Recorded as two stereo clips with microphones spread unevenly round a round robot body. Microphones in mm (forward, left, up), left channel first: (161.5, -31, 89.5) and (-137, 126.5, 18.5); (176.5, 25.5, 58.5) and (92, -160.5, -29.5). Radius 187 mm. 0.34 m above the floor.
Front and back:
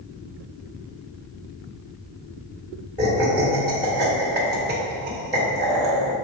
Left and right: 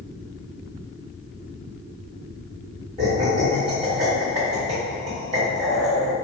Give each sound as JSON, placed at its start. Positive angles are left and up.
{"t": 3.0, "sound": "laughter", "azimuth_deg": -140, "distance_m": 1.9}